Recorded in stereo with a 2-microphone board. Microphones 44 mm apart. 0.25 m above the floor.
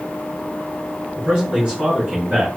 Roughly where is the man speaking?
Centre.